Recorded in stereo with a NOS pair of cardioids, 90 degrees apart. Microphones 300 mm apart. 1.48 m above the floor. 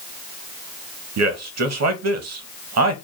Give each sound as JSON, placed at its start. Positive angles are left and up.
{"t": 1.2, "sound": "a man speaking", "azimuth_deg": -60, "distance_m": 1.0}